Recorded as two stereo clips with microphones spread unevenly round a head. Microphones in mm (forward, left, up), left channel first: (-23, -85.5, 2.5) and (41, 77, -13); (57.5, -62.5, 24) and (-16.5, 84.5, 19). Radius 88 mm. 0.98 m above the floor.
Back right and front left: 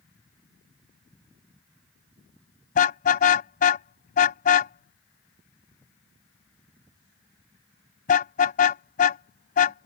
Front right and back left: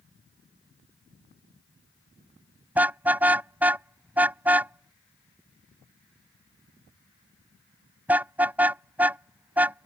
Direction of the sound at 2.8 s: 160° right.